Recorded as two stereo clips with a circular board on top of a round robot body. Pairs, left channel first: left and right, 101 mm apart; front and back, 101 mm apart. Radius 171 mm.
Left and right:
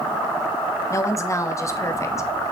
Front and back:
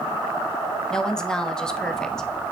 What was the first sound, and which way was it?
A woman speaking, 75° left.